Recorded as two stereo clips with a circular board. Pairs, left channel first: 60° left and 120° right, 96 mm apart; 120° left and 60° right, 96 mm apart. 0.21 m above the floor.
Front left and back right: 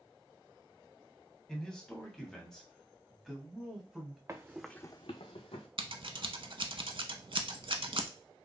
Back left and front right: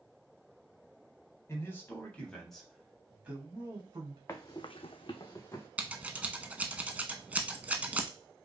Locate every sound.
1.5 s a man speaking: 135° left, 1.2 m; by 4.2 s 30° right, 1.3 m
4.3 s running footsteps: straight behind, 0.9 m; by 5.7 s 55° left, 1.4 m
5.8 s scissors: 130° right, 0.6 m